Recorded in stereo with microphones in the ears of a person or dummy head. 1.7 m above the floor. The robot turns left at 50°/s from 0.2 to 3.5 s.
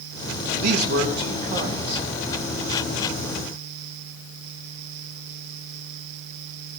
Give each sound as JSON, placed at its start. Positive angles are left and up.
{"t": 0.6, "sound": "a man speaking", "azimuth_deg": -90, "distance_m": 2.5}